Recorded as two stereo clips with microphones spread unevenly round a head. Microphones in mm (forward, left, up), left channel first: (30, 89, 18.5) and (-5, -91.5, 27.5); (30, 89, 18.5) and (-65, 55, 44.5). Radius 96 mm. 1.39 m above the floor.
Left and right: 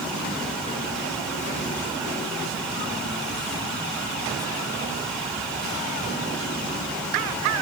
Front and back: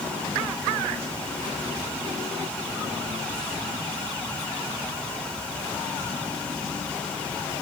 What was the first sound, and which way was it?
Only background noise.